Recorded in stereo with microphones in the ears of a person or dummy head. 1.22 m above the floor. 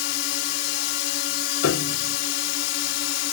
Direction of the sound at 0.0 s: 70° left (ahead or behind).